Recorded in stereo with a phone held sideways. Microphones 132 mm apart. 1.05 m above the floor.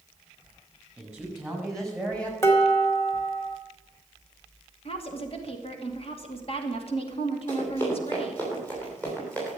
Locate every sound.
1.0 s a man speaking: 5° right (ahead or behind), 7 m; by 2.3 s 10° left (ahead or behind), 6 m
2.4 s dishes clattering: 20° left (ahead or behind), 2.5 m
4.8 s a woman speaking: 50° left (ahead or behind), 2.5 m
7.5 s running footsteps: 20° left (ahead or behind), 7.5 m; by 9.6 s 15° left (ahead or behind), 9.5 m